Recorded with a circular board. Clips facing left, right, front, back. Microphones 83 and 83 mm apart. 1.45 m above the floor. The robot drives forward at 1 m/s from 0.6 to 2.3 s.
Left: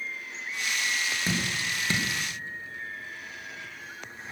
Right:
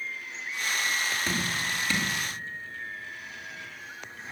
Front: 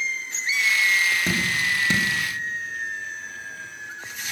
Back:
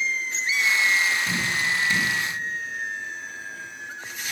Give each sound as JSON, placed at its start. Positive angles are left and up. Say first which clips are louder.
{"t": 1.3, "sound": "dripping", "louder": "even, front 1 dB", "azimuth_deg": 20, "distance_m": 2.5}